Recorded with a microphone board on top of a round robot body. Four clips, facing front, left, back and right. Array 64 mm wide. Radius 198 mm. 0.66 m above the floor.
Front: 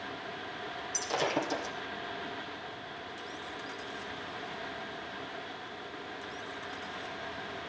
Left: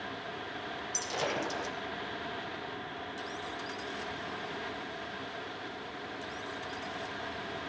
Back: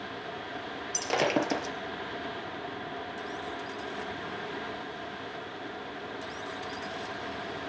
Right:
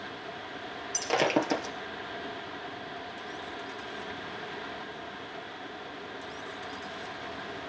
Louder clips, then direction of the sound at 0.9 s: Right 8 dB, back 4 dB; 130° right.